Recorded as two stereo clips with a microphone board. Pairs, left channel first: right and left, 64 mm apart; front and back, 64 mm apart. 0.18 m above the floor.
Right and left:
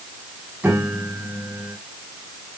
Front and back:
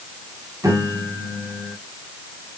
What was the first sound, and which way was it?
A piano, 155° left.